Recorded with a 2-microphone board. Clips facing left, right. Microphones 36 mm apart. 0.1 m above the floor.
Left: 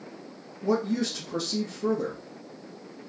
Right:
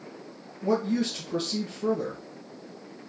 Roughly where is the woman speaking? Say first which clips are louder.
Even; right.